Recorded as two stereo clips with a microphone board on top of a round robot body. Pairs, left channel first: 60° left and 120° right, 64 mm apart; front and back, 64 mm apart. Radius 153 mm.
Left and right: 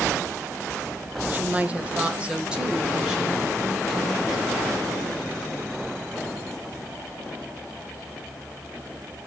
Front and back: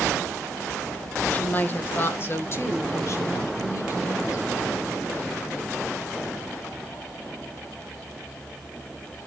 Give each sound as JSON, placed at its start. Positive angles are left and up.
{"t": 1.3, "sound": "a woman speaking", "azimuth_deg": -65, "distance_m": 1.5}